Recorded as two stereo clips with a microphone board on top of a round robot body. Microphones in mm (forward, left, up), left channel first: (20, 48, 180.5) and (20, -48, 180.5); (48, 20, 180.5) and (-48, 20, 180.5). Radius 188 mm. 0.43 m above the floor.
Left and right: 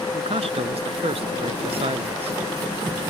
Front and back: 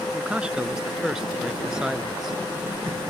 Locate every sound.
0.1 s a man speaking: 100° right; by 2.4 s 95° right